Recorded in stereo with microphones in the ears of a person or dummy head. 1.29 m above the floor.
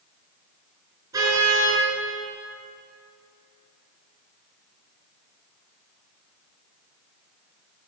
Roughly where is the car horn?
Right.